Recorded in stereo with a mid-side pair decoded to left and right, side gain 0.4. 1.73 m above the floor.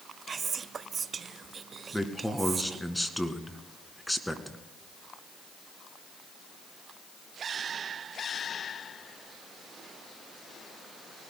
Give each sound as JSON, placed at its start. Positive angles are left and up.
{"t": 0.3, "sound": "whispering", "azimuth_deg": -45, "distance_m": 0.8}
{"t": 1.9, "sound": "a man speaking", "azimuth_deg": 5, "distance_m": 2.0}